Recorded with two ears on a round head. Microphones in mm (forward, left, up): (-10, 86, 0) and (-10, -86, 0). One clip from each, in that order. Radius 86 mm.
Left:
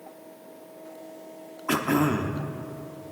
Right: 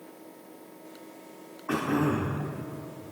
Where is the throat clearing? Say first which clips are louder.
Left 3 dB; 75° left (ahead or behind), 0.9 m.